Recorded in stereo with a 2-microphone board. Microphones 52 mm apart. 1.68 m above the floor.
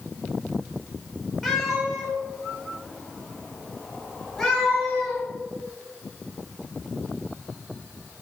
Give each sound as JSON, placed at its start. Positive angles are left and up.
{"t": 1.4, "sound": "a cat meowing", "side_deg": 5, "distance_m": 3.5}